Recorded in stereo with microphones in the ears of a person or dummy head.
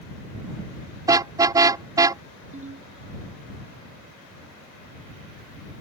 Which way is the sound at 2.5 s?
40° right (ahead or behind).